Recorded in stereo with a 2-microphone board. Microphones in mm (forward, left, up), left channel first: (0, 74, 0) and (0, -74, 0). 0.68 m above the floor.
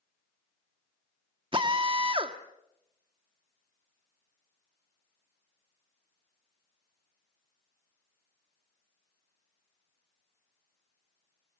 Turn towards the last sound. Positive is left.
turn(degrees=-35)  # may be behind; listen again after turning